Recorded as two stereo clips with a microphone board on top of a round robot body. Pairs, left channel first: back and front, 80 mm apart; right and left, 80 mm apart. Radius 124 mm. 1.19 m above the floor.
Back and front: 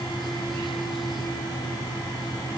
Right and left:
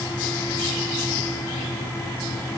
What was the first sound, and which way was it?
Only background noise.